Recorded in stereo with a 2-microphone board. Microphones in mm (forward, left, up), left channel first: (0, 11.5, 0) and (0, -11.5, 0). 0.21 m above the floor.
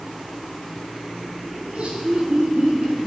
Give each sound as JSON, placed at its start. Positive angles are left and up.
{"t": 1.6, "sound": "laughter", "side_deg": -65, "distance_m": 3.5}